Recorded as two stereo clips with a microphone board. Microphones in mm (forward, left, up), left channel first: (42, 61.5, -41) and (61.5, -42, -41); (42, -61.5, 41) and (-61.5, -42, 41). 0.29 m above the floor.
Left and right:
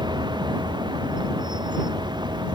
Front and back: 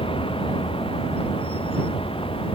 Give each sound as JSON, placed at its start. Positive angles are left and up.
{"t": 0.0, "sound": "a vehicle", "azimuth_deg": -40}